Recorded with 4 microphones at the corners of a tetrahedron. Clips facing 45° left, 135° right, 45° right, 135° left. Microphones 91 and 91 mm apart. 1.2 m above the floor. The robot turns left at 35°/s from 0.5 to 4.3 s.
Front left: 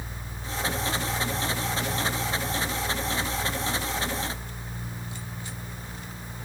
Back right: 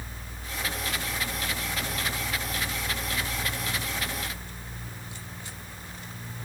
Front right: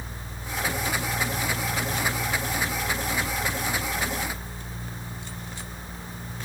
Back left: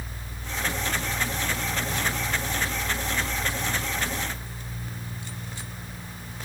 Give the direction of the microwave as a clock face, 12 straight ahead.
No microwave in this recording.